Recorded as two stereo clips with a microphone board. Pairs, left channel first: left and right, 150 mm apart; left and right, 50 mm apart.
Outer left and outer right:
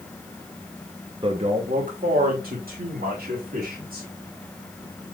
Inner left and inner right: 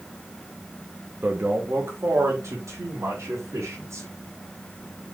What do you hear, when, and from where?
1.2 s a man speaking: 35° right (ahead or behind), 0.8 m; by 4.1 s 80° right, 3 m